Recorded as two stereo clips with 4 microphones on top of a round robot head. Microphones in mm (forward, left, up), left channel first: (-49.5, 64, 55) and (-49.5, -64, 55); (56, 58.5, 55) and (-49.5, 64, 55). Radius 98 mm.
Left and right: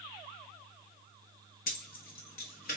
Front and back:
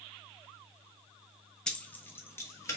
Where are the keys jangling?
80° left, 0.7 m; by 2.8 s 60° left, 1.4 m.